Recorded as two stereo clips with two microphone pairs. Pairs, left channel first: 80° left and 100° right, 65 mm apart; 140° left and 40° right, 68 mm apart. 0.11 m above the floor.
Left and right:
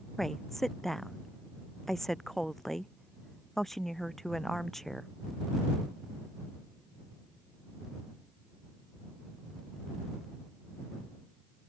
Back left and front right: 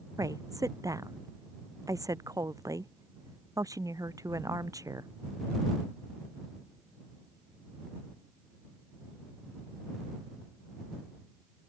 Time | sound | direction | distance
0.2 | a woman speaking | 5° right | ?